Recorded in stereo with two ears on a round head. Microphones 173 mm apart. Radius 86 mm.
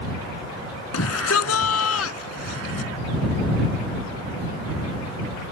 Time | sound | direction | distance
0.9 | a shout | 85° left | ?